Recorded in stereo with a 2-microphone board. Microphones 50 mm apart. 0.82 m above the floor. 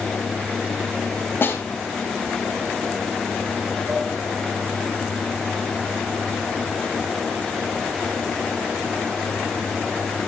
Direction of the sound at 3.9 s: 40° right (ahead or behind).